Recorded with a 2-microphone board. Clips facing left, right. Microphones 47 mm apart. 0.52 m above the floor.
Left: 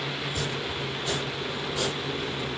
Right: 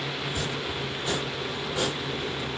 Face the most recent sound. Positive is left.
turn(degrees=-25)  # may be behind; listen again after turning